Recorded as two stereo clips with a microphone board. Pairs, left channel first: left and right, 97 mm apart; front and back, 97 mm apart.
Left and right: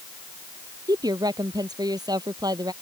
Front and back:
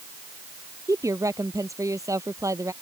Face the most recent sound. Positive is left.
turn(degrees=-130)